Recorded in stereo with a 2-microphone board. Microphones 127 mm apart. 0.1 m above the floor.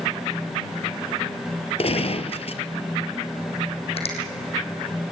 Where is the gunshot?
55° left (ahead or behind), 1.5 m.